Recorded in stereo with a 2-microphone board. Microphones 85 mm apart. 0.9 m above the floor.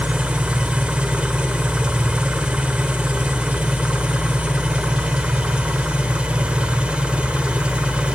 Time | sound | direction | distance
0.0 | an engine running | 15° right (ahead or behind) | 1.0 m